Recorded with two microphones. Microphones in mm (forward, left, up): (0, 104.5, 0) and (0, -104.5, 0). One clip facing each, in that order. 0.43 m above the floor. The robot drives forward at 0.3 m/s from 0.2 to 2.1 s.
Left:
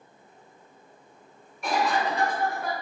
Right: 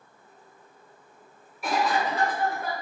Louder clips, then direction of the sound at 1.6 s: Even; 5° right (ahead or behind).